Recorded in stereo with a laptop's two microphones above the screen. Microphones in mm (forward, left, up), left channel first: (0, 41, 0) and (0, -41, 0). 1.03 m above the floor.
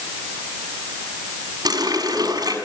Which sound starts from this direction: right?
A running tap, at 1.6 s.